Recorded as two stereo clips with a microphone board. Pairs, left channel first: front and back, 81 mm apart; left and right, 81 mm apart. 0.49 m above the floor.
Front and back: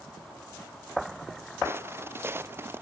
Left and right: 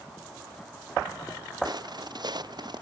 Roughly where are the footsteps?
Behind right.